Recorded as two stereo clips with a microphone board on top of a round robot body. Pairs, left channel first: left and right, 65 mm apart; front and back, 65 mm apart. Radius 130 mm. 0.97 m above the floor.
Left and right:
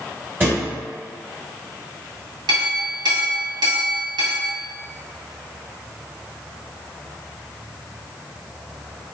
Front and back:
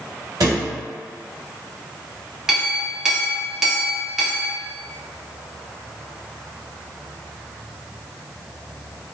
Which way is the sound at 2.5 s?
100° right.